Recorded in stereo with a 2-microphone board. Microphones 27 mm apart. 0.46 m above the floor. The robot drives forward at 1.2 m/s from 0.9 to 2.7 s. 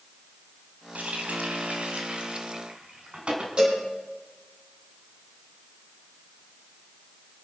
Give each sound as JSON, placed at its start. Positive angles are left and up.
{"t": 0.9, "sound": "a running tap", "side_deg": -75, "distance_m": 2.5}
{"t": 3.6, "sound": "a cowbell", "side_deg": -40, "distance_m": 7.5}